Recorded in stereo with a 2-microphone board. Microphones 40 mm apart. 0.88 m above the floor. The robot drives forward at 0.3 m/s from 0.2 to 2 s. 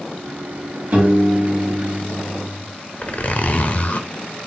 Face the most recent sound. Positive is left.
turn(degrees=40)  # may be behind; listen again after turning